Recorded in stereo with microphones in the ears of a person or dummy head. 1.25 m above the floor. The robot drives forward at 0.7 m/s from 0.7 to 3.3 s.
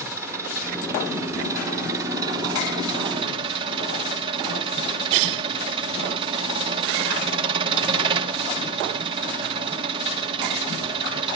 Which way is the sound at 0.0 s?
15° right (ahead or behind).